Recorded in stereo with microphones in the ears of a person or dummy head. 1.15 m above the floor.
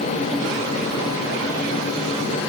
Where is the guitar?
I don't hear a guitar.